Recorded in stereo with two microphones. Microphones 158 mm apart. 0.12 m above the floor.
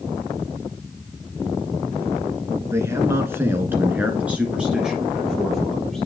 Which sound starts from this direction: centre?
A man speaking, at 2.7 s.